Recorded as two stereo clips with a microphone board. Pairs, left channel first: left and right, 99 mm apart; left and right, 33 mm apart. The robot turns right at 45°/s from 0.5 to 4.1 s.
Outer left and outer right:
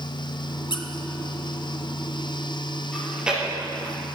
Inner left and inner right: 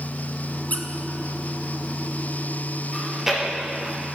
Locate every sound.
0.7 s a squeak: 60° left (ahead or behind), 1.1 m
2.9 s chewing: 5° left (ahead or behind), 4.5 m; by 4.0 s 40° right (ahead or behind), 4.5 m